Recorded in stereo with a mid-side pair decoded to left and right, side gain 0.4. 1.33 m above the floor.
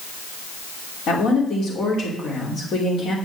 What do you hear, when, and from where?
1.1 s a woman speaking: 70° left, 3 m